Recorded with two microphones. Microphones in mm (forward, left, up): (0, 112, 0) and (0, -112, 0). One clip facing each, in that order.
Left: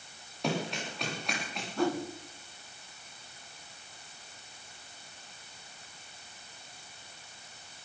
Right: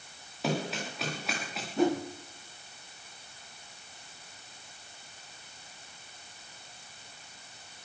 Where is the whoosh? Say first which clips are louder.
Right 3 dB; 20° right (ahead or behind), 1.6 m.